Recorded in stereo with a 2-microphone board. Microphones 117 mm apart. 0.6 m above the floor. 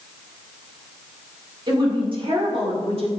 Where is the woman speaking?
40° right (ahead or behind), 1.7 m; by 3.1 s 55° right (ahead or behind), 1.7 m.